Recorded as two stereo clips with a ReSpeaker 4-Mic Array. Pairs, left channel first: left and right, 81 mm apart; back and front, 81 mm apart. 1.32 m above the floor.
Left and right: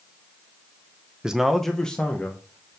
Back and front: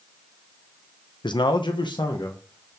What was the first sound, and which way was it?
A man speaking, 170° right.